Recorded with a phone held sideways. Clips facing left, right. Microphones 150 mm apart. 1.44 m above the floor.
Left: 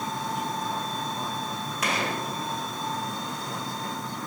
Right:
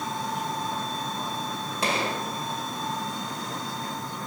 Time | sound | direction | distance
1.8 | a gunshot | 30° right (ahead or behind) | 1.5 m